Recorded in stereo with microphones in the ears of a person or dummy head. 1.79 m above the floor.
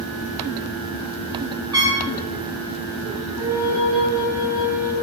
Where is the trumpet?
25° right (ahead or behind), 3 m.